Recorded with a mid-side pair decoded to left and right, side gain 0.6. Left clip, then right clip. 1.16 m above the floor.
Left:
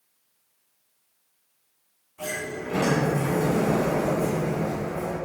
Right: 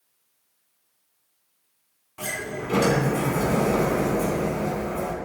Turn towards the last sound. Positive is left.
turn(degrees=-55)